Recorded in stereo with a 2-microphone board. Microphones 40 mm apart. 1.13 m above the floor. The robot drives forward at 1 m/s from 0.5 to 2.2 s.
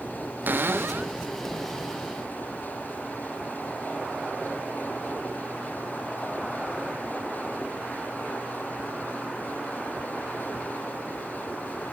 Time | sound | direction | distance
0.5 | a cupboard door | 55° right (ahead or behind) | 0.5 m